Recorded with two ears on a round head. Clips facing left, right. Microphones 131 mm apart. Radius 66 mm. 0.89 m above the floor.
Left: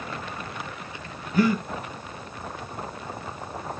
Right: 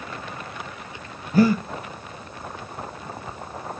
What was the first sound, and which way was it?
Breathing, 30° right (ahead or behind).